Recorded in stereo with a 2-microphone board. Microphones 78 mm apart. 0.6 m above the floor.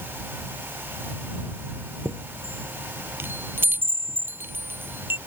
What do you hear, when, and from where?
2.0 s a chime: 25° right (ahead or behind)